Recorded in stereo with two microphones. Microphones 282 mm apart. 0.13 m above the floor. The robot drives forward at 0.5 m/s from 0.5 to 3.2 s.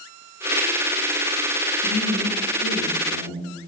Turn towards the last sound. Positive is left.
turn(degrees=15)  # may be behind; listen again after turning